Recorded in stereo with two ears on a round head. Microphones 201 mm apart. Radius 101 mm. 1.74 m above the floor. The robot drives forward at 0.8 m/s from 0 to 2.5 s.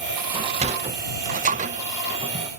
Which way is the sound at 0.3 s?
25° right (ahead or behind).